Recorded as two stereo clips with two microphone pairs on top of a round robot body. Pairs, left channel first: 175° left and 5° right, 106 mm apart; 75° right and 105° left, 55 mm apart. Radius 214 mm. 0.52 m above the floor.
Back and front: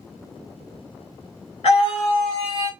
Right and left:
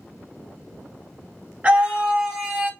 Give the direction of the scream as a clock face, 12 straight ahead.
7 o'clock.